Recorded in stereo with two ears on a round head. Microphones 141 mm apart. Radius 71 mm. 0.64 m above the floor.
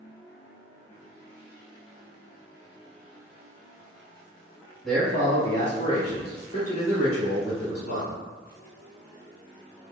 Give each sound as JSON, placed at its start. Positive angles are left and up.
{"t": 4.8, "sound": "a man speaking", "side_deg": 0, "distance_m": 1.2}